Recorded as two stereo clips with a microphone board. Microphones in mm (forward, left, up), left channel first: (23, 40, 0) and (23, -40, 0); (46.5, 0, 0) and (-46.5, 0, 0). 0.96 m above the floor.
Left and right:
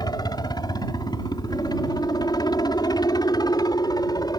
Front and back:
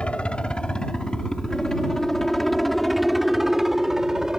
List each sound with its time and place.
0.0 s a helicopter: 75° left; by 4.4 s 100° left